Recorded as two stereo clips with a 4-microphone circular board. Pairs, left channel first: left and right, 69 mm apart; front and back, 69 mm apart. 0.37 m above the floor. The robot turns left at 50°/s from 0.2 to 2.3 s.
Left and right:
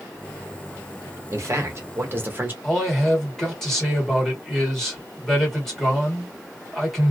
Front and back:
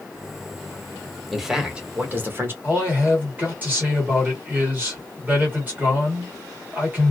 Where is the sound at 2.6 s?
170° left, 1.5 m.